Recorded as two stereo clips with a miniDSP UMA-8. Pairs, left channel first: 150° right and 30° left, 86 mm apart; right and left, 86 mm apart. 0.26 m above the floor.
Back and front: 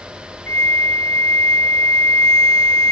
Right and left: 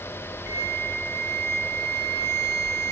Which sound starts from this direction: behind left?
A flute, at 0.5 s.